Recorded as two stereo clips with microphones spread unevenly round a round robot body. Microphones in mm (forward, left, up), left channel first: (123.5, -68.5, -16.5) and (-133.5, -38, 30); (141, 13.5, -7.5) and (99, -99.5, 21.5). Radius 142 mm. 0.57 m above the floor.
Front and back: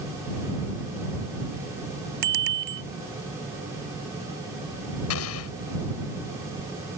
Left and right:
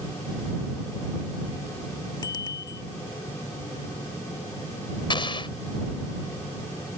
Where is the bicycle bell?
145° left.